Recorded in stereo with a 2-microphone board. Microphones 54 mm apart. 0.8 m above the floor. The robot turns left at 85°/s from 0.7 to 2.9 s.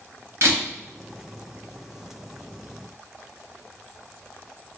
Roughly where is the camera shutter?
Right.